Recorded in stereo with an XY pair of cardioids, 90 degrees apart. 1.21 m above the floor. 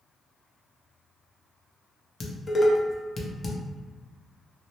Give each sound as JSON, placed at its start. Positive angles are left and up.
{"t": 2.2, "sound": "dishes clattering", "azimuth_deg": 35, "distance_m": 0.7}